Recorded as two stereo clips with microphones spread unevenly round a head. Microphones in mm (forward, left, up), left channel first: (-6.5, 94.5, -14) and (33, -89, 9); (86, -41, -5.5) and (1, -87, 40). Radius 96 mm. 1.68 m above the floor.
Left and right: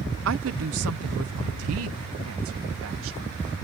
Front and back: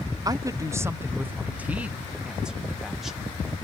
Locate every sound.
0.2 s a woman speaking: 100° right; by 3.3 s 65° right